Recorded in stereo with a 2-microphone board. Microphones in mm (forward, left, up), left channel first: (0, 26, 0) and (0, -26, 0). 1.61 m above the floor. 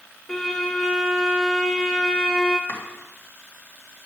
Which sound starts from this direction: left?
Chopping, at 2.7 s.